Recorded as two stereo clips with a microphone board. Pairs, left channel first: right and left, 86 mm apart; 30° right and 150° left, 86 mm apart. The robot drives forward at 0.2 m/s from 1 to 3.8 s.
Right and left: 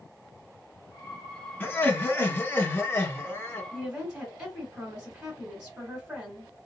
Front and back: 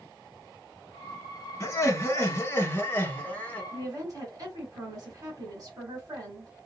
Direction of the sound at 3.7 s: 155° left.